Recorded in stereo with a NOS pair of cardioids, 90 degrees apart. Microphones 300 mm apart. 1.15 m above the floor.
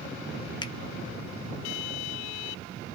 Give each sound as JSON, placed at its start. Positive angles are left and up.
{"t": 0.6, "sound": "a finger snap", "azimuth_deg": 15, "distance_m": 0.5}